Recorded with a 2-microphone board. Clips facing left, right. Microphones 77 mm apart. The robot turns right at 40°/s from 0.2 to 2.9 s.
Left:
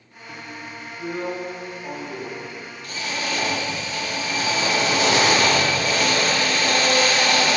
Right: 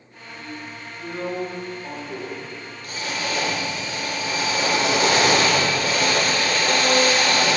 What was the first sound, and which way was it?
A drill, 125° left.